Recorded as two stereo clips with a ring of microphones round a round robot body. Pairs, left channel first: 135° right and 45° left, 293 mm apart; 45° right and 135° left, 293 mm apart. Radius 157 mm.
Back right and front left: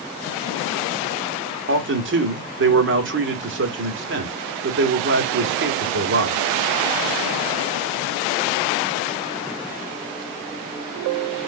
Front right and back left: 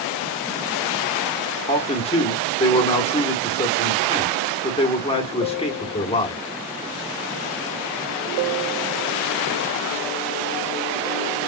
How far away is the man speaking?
About 1.2 m.